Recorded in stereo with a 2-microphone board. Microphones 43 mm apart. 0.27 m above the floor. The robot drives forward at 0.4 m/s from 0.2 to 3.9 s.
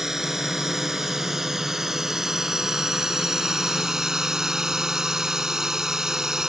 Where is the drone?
10° right (ahead or behind).